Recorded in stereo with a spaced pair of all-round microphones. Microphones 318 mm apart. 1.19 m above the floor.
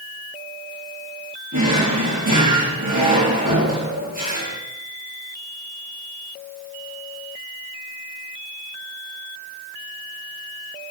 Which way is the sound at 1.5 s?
75° right (ahead or behind).